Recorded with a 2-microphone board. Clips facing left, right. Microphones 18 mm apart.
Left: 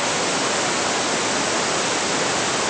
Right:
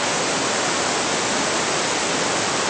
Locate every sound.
Only background noise.